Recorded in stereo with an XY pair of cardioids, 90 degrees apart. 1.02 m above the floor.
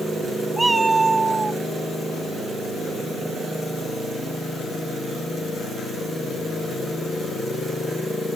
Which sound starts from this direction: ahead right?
A cat meowing, at 0.6 s.